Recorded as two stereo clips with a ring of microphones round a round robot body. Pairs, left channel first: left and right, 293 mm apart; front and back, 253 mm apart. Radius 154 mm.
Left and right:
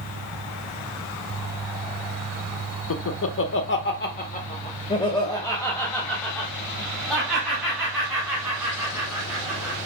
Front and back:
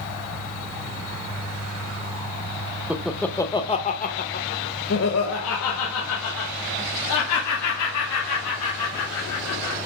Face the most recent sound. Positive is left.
turn(degrees=-5)